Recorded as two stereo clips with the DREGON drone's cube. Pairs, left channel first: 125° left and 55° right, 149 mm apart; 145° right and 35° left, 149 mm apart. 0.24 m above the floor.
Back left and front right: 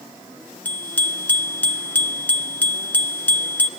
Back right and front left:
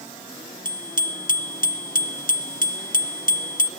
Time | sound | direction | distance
0.7 | a bicycle bell | 155° right | 2.5 m